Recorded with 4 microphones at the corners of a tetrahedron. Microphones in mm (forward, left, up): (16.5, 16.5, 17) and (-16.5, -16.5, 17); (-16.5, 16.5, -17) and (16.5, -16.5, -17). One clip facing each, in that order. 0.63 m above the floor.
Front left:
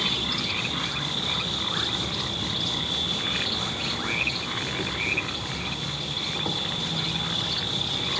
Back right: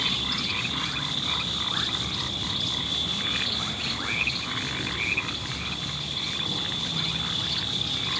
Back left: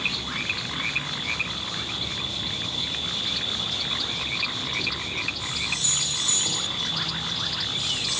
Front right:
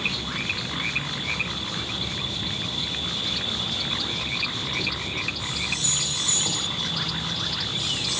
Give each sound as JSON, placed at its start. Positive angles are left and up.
{"t": 0.0, "sound": "an insect", "azimuth_deg": 30, "distance_m": 1.1}